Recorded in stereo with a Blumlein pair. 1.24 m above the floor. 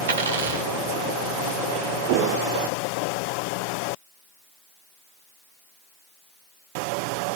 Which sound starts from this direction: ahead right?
A dropped coin, at 0.1 s.